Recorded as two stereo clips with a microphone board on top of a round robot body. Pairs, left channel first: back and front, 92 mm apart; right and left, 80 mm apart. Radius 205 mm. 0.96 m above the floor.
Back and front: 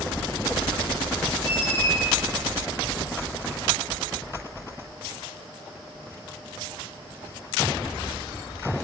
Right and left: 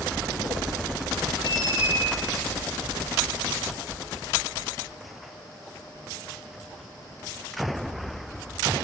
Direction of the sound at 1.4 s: 110° left.